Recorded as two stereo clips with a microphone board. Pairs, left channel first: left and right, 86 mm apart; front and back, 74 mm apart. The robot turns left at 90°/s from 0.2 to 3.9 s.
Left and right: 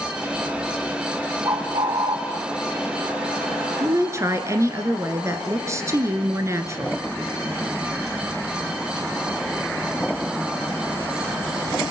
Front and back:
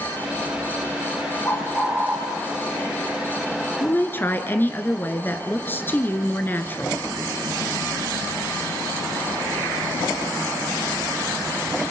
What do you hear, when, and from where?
1.4 s a bird: 65° right, 2 m; by 2.2 s 130° right, 2 m
3.8 s a woman speaking: 40° right, 1.9 m; by 7.0 s 50° right, 1.9 m